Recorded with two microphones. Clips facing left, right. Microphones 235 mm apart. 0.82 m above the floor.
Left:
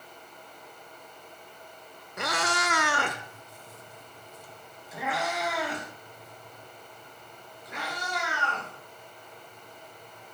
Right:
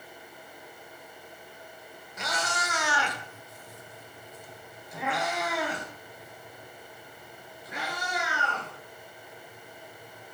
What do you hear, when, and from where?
2.2 s a cat meowing: 65° left (ahead or behind), 1.1 m; by 10.3 s 10° right (ahead or behind), 8 m